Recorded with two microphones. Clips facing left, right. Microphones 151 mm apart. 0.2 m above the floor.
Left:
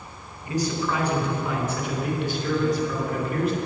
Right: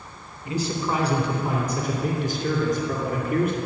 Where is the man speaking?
25° right (ahead or behind), 2.5 m; by 3.6 s 55° right (ahead or behind), 3.5 m.